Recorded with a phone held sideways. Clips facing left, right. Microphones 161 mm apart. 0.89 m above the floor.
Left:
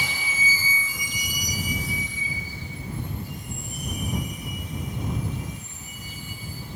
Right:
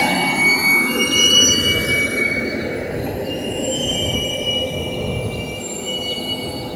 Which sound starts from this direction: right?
A vehicle, at 0.0 s.